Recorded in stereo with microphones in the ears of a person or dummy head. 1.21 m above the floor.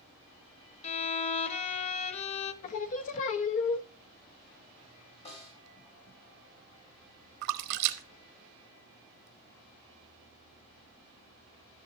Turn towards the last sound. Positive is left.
turn(degrees=-70)  # may be behind; listen again after turning